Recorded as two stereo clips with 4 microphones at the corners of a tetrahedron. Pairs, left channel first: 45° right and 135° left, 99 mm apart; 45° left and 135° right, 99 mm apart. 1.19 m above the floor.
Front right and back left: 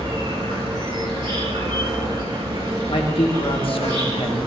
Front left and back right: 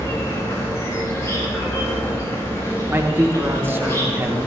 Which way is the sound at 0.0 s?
105° left.